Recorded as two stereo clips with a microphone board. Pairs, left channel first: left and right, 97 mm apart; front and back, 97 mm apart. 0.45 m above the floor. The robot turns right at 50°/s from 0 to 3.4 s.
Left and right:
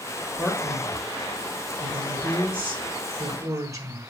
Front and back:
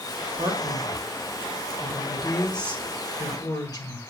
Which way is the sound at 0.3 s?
170° left.